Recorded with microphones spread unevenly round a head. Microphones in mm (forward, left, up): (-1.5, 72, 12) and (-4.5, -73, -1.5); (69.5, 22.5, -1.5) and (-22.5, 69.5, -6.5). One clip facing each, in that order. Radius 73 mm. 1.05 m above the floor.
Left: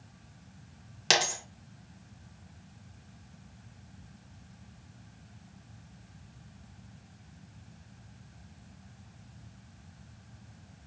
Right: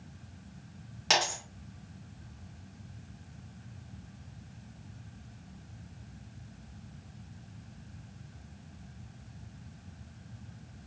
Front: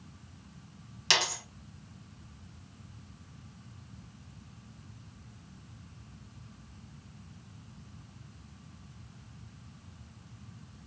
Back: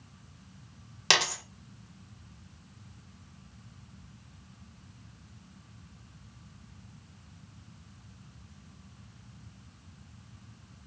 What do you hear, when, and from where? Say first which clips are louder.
1.1 s a dropped coin: even, back 3 dB; 130° left, 1.8 m